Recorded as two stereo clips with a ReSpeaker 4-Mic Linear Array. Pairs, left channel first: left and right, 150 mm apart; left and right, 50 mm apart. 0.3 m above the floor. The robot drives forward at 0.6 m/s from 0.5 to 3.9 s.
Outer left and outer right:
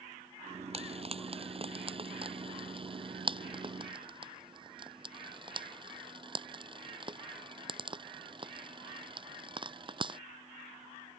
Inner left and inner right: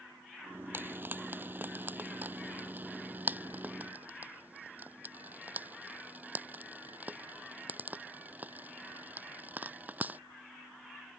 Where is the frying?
40° right (ahead or behind); by 10.2 s 35° right (ahead or behind).